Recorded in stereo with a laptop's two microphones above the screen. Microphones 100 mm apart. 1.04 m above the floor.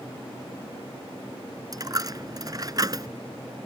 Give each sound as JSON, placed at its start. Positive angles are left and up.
{"t": 1.7, "sound": "a dropped coin", "side_deg": -40}